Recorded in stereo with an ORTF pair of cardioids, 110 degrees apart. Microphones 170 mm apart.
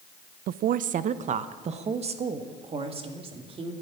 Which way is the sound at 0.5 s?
65° right.